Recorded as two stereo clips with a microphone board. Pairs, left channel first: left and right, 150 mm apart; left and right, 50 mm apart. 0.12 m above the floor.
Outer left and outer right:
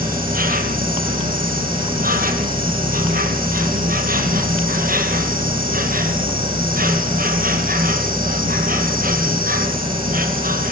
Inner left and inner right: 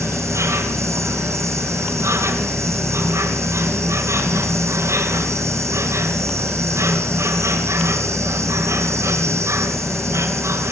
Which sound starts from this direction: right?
An insect, at 0.0 s.